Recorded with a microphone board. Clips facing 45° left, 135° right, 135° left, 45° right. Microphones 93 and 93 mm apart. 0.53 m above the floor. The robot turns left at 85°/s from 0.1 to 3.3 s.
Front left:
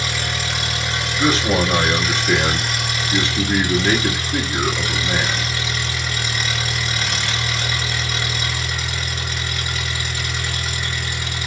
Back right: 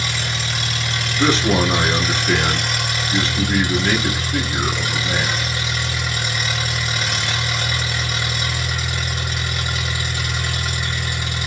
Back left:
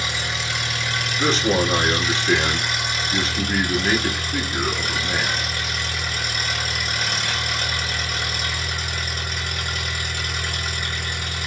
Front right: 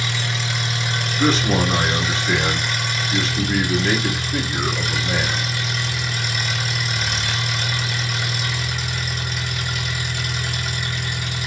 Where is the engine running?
75° left, 1.8 m; by 11.5 s 165° left, 1.8 m.